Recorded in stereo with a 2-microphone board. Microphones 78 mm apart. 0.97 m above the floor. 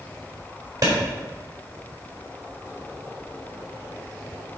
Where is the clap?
50° right (ahead or behind), 4 m.